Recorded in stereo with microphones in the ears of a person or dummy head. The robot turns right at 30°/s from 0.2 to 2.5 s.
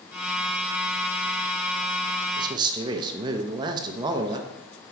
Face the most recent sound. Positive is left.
turn(degrees=-25)  # may be behind; listen again after turning